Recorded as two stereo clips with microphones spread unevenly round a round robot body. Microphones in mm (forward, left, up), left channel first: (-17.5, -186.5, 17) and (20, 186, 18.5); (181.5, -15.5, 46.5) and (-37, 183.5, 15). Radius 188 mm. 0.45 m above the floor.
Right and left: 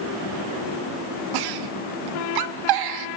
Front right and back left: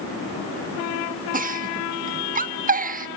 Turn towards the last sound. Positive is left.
turn(degrees=80)